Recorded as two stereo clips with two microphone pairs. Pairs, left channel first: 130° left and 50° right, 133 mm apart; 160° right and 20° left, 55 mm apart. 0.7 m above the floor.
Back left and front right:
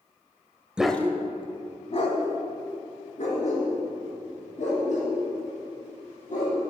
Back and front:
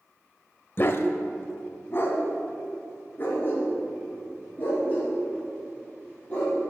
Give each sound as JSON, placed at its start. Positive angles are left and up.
{"t": 0.8, "sound": "a dog barking", "azimuth_deg": -135, "distance_m": 0.5}